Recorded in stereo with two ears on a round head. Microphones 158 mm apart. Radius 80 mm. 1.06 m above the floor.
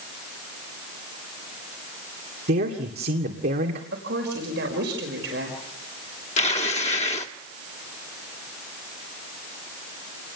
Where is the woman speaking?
75° right (ahead or behind), 5.5 m.